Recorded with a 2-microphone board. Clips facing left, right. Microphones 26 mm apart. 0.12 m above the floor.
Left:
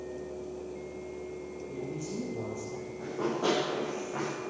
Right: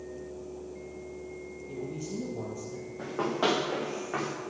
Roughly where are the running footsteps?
Right.